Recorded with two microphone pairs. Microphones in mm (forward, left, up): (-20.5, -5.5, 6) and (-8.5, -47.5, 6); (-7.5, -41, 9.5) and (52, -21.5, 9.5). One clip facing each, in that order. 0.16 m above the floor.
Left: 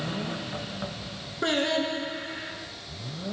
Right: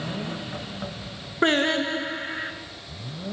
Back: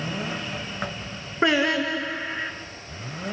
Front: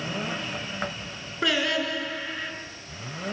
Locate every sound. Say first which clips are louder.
1.4 s singing: right 4 dB, back 4 dB; 105° right, 1.0 m